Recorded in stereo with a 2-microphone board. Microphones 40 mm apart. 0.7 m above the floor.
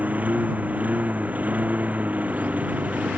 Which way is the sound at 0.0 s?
40° right (ahead or behind).